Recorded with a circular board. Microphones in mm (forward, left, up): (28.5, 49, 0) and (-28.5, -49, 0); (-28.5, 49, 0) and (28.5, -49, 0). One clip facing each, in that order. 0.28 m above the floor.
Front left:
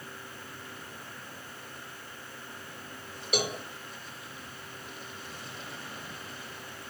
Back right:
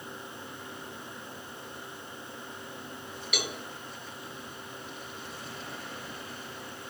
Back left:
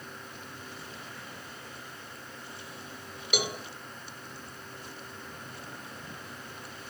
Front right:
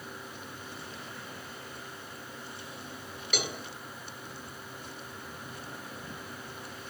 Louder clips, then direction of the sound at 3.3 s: Front left 6 dB, back left 3 dB; 55° left.